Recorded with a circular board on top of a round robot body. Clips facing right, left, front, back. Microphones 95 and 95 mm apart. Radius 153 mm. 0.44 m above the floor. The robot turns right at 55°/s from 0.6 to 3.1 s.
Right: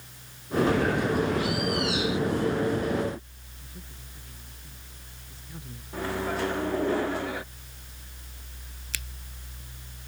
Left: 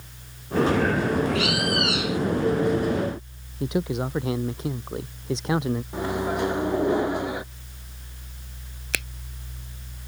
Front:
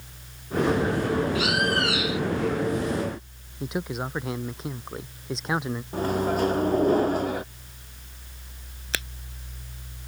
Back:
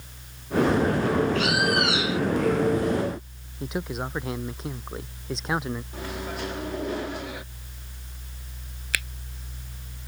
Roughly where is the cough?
No cough in this recording.